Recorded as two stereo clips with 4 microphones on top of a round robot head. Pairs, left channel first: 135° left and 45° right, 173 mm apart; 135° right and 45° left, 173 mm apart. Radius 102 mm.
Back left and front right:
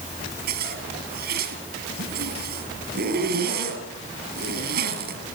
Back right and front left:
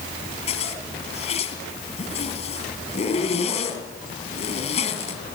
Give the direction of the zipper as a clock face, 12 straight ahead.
3 o'clock.